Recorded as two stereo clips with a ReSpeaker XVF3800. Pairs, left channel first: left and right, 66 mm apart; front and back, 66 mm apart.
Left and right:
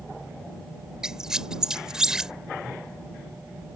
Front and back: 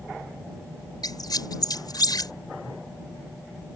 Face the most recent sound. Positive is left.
turn(degrees=-10)